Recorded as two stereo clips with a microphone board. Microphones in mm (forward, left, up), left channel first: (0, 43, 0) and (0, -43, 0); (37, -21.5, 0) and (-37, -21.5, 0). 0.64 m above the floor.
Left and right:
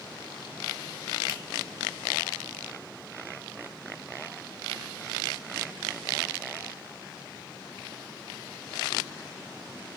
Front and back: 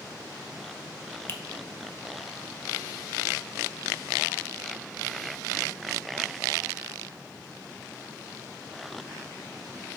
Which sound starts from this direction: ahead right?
A finger snap, at 1.3 s.